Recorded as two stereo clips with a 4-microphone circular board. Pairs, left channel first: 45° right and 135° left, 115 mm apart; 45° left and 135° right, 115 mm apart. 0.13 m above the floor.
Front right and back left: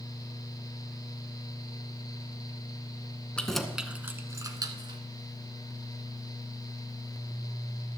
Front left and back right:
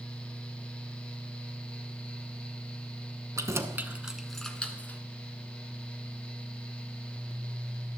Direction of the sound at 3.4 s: 115° right.